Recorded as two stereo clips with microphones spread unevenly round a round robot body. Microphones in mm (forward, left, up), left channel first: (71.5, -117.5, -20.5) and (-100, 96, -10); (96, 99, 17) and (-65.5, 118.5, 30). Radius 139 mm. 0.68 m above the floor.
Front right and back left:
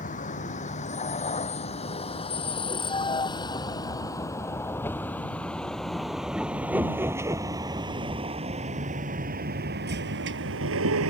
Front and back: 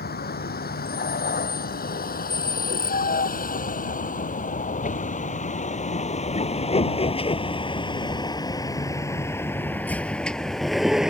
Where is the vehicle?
15° left; by 11.1 s 85° left.